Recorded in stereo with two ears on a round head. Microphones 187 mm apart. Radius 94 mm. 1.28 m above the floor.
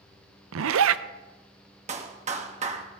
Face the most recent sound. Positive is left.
turn(degrees=-35)  # may be behind; listen again after turning